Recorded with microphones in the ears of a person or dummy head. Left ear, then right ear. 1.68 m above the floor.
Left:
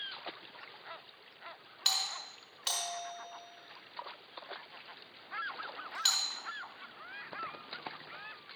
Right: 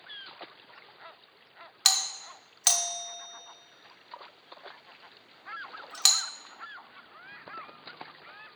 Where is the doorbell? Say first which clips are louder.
Right 6 dB; 50° right (ahead or behind), 0.7 m.